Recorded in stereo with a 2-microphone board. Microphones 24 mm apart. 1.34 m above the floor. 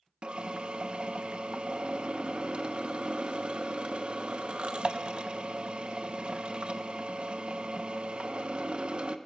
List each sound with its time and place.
0.2 s a drill: 40° right (ahead or behind), 0.9 m